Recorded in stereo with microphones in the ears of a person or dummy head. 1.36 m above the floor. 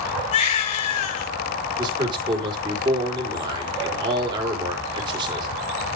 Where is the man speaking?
25° right (ahead or behind), 4 m.